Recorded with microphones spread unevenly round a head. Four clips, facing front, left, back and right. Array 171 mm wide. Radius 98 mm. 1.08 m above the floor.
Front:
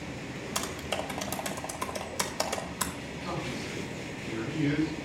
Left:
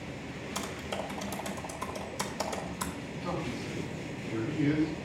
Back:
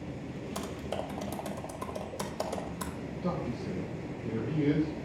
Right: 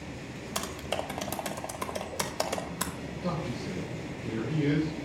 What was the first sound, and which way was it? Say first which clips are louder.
Typing on a keyboard: right 3 dB, front 2 dB; 125° right.